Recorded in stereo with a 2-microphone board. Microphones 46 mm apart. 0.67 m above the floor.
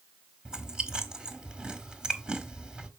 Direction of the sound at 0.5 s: 20° right (ahead or behind).